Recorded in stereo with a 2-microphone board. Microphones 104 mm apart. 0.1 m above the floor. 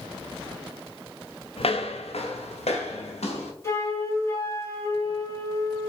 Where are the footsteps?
65° left (ahead or behind), 1.0 m; by 3.5 s 90° left, 3.5 m.